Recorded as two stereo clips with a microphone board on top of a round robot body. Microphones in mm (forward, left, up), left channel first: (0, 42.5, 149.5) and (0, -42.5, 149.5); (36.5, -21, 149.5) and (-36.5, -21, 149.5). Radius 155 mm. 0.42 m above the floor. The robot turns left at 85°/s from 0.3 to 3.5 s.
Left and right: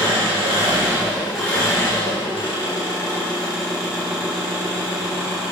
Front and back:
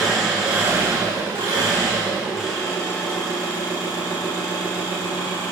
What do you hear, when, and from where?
0.0 s an engine running: 95° right, 3.5 m; by 5.5 s 5° right, 3.5 m